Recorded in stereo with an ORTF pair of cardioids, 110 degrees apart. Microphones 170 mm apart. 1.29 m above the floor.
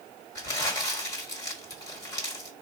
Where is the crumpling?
20° left, 1.4 m.